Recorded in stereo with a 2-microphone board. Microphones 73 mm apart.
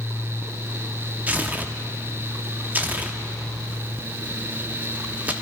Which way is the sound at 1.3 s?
20° right (ahead or behind).